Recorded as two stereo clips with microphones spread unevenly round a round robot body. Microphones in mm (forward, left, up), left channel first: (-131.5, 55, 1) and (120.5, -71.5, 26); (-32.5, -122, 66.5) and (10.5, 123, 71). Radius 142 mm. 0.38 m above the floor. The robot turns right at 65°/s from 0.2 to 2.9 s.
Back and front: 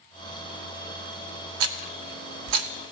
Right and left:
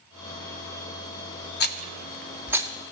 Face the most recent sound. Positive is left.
turn(degrees=20)